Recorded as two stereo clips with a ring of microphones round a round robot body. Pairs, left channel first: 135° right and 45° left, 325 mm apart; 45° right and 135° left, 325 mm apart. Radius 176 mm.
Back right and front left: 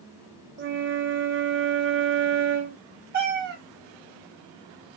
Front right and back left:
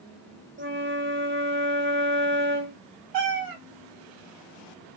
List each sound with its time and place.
0.6 s a flute: 90° left, 0.6 m
3.1 s a cat meowing: 105° left, 1.1 m